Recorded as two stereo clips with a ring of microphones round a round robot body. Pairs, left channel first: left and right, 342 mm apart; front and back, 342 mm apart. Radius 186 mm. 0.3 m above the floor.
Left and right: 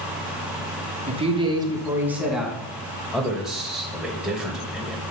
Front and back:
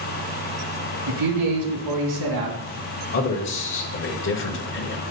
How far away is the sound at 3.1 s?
About 1.1 m.